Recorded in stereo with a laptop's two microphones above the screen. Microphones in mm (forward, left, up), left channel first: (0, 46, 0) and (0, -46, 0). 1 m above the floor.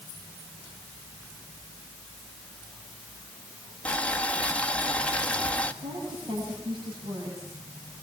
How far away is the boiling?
About 1.7 m.